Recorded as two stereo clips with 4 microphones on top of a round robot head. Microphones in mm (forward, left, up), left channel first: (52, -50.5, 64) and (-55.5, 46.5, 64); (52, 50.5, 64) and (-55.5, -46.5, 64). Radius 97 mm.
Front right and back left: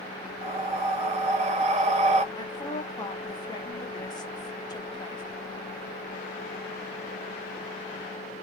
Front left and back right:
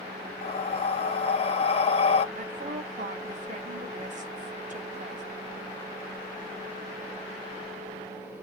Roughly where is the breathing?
Left.